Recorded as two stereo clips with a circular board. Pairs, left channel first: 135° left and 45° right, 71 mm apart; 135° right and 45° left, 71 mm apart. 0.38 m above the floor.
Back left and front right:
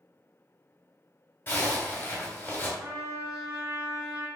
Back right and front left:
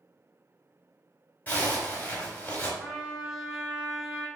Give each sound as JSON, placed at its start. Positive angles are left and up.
{"t": 1.5, "sound": "a zipper", "azimuth_deg": 175, "distance_m": 1.7}
{"t": 2.8, "sound": "a trumpet", "azimuth_deg": -35, "distance_m": 1.9}